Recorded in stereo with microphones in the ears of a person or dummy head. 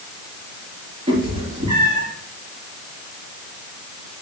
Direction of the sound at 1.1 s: 35° right (ahead or behind).